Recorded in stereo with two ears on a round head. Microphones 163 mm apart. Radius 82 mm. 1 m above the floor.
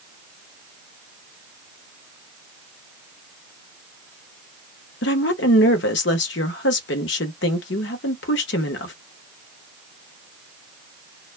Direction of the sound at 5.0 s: 65° left (ahead or behind).